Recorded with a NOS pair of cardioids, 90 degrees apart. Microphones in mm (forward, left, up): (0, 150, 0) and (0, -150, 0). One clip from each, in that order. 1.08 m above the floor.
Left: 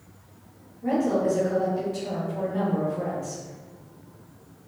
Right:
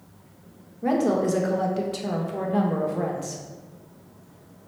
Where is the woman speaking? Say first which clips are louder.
Right 1 dB; 65° right, 1.2 m.